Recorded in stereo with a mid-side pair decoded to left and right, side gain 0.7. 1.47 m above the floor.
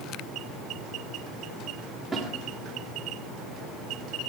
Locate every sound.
2.1 s a snare drum: 5° right, 3.5 m